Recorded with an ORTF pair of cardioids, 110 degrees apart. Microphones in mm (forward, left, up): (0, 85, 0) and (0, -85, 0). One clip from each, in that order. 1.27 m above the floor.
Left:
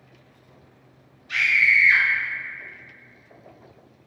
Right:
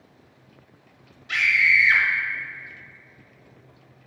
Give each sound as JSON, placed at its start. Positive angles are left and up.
{"t": 1.3, "sound": "a scream", "azimuth_deg": -55, "distance_m": 0.7}